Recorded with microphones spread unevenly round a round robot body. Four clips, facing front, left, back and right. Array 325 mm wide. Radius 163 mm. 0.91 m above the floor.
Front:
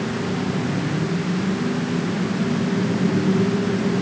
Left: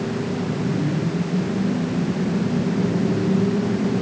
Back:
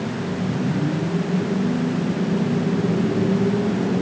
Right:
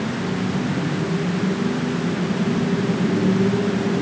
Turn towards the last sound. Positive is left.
No sound to turn to.